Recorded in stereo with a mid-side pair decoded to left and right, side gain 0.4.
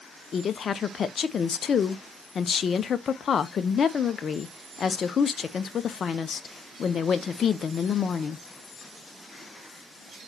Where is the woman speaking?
55° left, 0.9 m.